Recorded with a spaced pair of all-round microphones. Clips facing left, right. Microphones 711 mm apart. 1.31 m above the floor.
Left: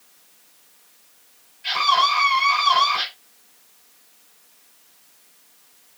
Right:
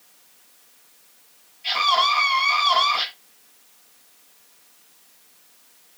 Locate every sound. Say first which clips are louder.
1.6 s a scream: left 1 dB; 40° left (ahead or behind), 8.5 m